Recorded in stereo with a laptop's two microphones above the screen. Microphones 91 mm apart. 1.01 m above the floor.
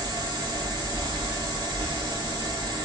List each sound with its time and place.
0.0 s a fan: 55° right (ahead or behind), 1.1 m